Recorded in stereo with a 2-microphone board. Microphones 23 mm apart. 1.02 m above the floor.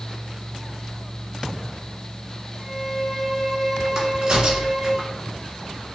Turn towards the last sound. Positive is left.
turn(degrees=-40)  # may be behind; listen again after turning